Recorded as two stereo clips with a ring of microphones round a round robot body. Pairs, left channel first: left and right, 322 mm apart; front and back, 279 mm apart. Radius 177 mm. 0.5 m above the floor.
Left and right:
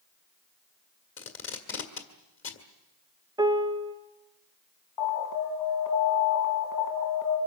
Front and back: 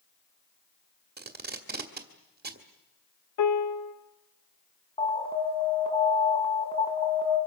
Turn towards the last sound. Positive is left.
turn(degrees=70)